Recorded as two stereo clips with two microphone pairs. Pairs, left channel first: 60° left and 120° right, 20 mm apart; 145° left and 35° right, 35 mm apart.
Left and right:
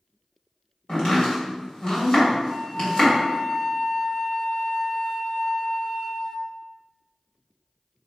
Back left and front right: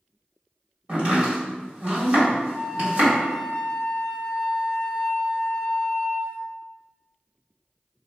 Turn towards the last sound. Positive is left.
turn(degrees=-15)